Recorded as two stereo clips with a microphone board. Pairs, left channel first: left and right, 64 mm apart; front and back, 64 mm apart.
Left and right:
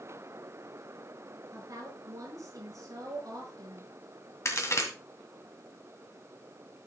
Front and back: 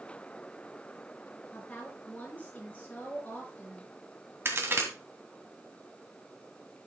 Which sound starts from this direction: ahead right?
A woman speaking, at 1.5 s.